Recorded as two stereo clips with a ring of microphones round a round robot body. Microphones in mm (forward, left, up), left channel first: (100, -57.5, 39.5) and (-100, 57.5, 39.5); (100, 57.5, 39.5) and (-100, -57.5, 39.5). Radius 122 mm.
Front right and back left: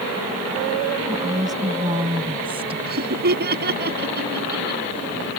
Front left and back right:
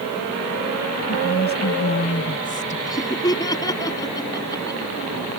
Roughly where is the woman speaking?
Left.